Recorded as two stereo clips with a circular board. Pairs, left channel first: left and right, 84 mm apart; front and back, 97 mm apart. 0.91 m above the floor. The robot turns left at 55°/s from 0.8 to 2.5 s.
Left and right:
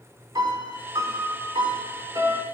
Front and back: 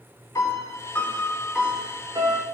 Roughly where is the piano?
Ahead right.